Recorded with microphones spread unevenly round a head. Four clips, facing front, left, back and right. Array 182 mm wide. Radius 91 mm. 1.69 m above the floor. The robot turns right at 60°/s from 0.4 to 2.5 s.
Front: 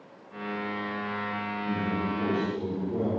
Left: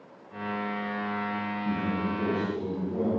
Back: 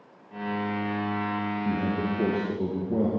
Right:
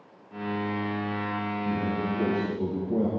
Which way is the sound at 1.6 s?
165° left.